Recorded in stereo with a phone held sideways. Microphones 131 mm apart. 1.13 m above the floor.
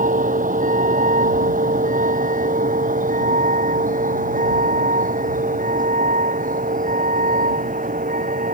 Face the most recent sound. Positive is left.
turn(degrees=-85)